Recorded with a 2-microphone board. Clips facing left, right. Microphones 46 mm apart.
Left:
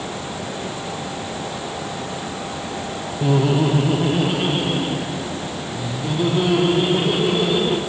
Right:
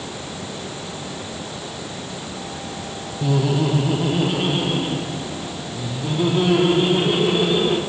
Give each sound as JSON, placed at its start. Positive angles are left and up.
{"t": 3.2, "sound": "laughter", "side_deg": 25, "distance_m": 0.9}